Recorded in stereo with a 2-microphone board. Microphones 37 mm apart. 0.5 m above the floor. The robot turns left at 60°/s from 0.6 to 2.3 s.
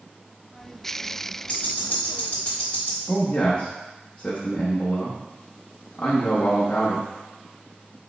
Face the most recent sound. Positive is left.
turn(degrees=35)  # may be behind; listen again after turning